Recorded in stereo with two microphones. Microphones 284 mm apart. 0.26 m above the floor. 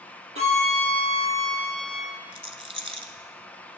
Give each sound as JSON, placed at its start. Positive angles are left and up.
{"t": 0.3, "sound": "a violin", "side_deg": -55, "distance_m": 2.5}
{"t": 2.3, "sound": "a rattle", "side_deg": -20, "distance_m": 0.8}